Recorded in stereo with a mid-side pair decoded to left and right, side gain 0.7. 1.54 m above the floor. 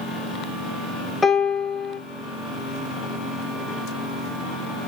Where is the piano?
10° left, 0.6 m.